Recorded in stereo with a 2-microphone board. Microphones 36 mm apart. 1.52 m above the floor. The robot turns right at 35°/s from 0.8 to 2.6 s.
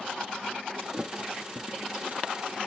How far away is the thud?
About 1.4 m.